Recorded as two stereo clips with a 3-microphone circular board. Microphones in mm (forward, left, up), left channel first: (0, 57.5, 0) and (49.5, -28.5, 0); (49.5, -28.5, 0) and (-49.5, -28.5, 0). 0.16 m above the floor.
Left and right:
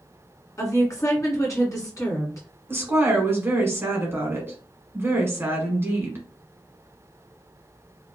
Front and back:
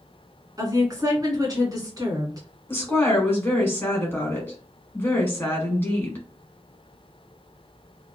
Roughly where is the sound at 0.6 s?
Behind left.